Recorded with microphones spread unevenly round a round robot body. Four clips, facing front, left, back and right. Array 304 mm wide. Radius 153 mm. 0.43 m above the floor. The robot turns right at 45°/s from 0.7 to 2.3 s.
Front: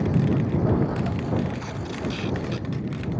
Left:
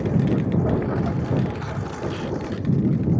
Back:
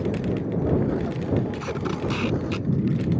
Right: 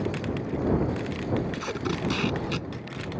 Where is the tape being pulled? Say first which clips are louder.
Even, back 4 dB; straight behind; by 2.7 s 145° right.